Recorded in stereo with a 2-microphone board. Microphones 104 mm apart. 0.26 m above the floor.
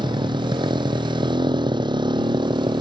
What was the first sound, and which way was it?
A motorcycle, 45° right (ahead or behind).